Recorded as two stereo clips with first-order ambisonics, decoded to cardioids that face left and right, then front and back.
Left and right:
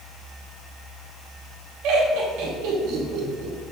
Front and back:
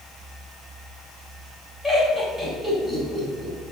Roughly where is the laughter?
Right.